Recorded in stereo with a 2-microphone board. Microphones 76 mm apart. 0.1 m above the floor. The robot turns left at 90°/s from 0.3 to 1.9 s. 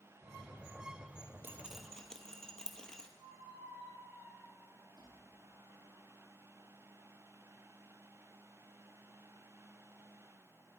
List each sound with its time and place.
1.4 s dripping: 30° right (ahead or behind), 0.9 m; by 3.1 s 10° left (ahead or behind), 0.9 m
3.2 s a squeak: 80° right, 4 m